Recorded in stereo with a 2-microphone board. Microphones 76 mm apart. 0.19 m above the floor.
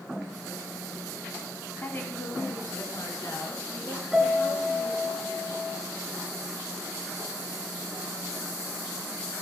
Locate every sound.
1.8 s a woman speaking: 30° left (ahead or behind), 1.5 m; by 5.1 s 60° left (ahead or behind), 4.5 m
4.1 s a piano: 5° right (ahead or behind), 2.5 m